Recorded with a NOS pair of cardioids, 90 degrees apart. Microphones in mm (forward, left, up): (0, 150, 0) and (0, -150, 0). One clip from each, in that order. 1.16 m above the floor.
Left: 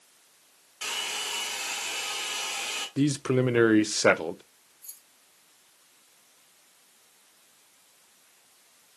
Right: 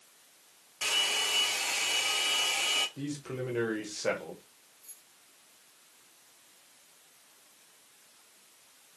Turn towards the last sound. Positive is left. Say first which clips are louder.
# left 6 dB
turn(degrees=55)